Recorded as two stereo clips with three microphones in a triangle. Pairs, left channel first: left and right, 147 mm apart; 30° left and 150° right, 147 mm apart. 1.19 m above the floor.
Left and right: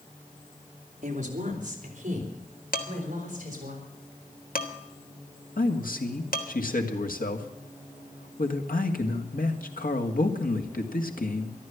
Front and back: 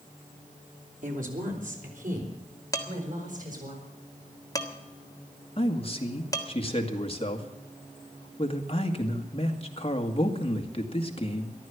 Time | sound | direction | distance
1.0 | a woman speaking | 125° right | 3.5 m
2.7 | dishes clattering | 95° left | 1.6 m
5.6 | a man speaking | 75° left | 2 m